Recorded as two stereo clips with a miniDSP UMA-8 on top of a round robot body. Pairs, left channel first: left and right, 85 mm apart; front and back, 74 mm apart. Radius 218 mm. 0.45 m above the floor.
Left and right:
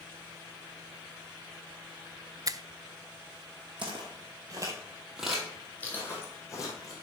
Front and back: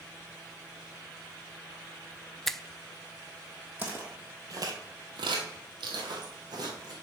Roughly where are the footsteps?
Right.